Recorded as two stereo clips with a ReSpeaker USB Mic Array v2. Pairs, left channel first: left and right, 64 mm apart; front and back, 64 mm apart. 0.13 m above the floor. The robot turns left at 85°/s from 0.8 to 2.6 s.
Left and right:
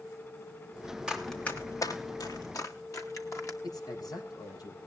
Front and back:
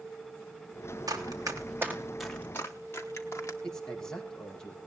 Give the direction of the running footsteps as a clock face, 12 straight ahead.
6 o'clock.